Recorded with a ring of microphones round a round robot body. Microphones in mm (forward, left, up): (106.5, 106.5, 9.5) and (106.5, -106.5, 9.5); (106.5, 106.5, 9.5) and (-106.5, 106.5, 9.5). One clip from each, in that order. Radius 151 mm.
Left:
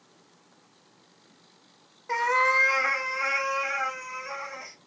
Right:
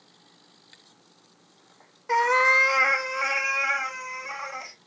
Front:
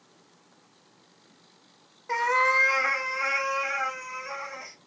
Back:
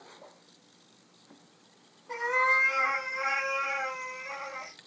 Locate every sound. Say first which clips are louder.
2.1 s a cat meowing: right 3 dB, front 3 dB; 25° right, 0.5 m; by 4.8 s 50° right, 1.9 m